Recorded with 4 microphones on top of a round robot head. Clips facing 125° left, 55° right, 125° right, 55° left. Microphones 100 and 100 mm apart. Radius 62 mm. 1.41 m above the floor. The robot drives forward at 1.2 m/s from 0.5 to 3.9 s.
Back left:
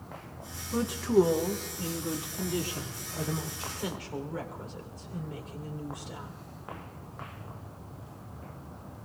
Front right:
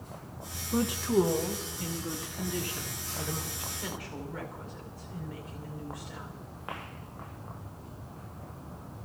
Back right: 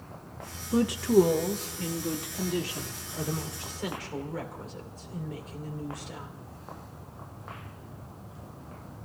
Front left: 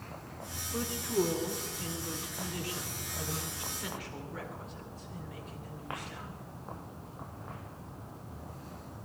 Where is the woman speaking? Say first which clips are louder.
Back left 2 dB, back right 10 dB; 135° right, 0.9 m; by 6.3 s 170° right, 4.5 m.